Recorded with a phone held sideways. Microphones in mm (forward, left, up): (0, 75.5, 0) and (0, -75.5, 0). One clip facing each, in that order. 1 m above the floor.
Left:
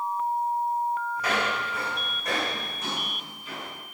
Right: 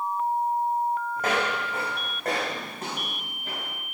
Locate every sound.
1.2 s footsteps: 50° right (ahead or behind), 4 m; by 3.7 s 60° right (ahead or behind), 6 m